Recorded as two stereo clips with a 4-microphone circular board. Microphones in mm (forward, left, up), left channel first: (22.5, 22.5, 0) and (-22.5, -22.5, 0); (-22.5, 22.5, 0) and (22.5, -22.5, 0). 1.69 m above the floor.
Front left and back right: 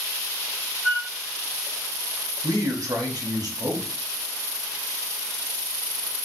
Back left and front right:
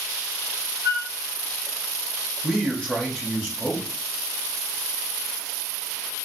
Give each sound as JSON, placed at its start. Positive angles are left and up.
{"t": 0.8, "sound": "a flute", "azimuth_deg": -40, "distance_m": 1.4}
{"t": 2.4, "sound": "a man speaking", "azimuth_deg": -145, "distance_m": 1.4}